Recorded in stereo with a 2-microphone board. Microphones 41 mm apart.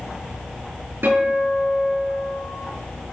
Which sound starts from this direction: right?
A guitar, at 1.0 s.